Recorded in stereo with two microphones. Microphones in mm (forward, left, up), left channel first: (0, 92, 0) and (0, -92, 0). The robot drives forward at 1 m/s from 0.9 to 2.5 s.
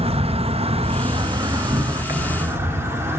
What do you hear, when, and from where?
0.0 s an insect: 30° right (ahead or behind), 1.0 m; by 3.2 s 10° right (ahead or behind), 2.5 m